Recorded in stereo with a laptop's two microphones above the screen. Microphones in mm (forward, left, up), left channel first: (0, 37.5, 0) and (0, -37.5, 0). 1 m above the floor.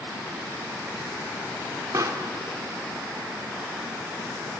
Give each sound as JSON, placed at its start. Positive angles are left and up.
{"t": 1.9, "sound": "a pop", "side_deg": -50, "distance_m": 1.1}